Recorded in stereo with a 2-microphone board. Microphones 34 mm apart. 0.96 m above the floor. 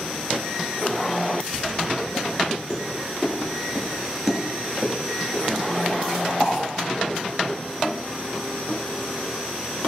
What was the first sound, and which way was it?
Footsteps, 25° left (ahead or behind).